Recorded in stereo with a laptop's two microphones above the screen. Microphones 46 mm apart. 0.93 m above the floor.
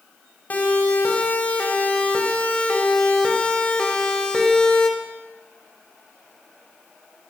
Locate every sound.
0.5 s a siren: 35° left (ahead or behind), 6 m; by 4.9 s 15° left (ahead or behind), 4.5 m